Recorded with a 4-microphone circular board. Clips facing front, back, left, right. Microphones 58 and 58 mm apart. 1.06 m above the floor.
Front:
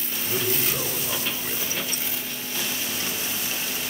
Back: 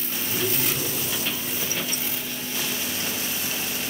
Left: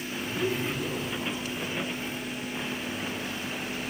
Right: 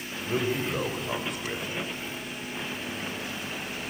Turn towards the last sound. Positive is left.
turn(degrees=-60)